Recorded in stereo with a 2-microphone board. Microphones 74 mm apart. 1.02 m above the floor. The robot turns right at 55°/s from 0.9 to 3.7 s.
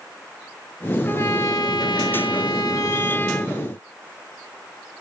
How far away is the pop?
No pop in this recording.